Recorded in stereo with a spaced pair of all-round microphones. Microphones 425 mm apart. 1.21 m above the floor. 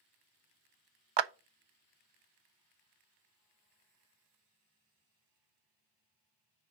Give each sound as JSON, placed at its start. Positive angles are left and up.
{"t": 1.2, "sound": "a clap", "side_deg": -80, "distance_m": 0.6}